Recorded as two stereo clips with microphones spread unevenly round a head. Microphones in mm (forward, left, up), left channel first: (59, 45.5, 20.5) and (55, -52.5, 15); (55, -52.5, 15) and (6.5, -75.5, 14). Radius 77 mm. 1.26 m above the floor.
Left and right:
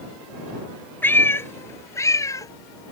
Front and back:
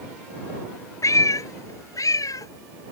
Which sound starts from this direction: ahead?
A cat meowing, at 1.0 s.